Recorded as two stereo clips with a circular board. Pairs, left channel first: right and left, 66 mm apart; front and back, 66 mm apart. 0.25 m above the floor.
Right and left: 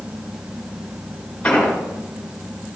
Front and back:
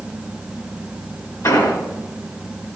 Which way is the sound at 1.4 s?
20° right.